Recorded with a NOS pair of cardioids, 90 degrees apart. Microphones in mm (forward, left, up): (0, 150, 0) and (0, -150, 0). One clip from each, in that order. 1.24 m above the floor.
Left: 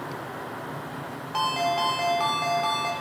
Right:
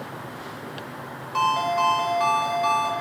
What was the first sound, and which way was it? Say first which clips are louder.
A ringtone: right 3 dB; 20° left.